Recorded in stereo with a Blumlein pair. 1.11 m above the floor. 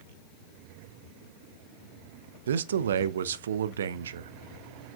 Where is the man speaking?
65° right, 0.6 m.